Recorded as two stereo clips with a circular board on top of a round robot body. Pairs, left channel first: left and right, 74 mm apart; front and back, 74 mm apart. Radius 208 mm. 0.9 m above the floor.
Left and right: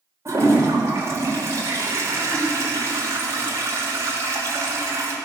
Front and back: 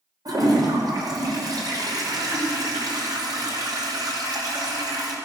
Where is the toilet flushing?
145° right, 3 m.